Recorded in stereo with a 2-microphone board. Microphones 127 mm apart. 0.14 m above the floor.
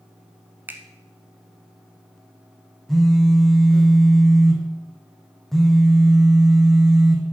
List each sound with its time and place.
0.7 s a finger snap: 15° right (ahead or behind), 1.0 m
2.9 s a phone buzzing: centre (ahead or behind), 1.4 m